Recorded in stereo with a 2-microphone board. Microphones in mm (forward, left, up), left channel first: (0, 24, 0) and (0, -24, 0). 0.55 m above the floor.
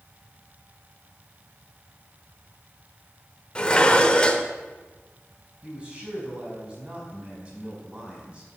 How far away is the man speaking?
About 5.5 m.